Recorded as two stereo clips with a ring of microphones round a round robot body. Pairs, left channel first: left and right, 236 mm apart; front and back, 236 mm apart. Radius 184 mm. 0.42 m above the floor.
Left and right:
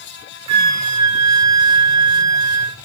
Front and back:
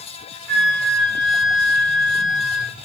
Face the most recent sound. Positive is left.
turn(degrees=-90)